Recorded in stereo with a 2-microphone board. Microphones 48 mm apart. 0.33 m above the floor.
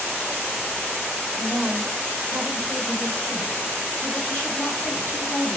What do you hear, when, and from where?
1.4 s a woman speaking: 5° right (ahead or behind), 0.9 m; by 5.6 s 60° left (ahead or behind), 2.5 m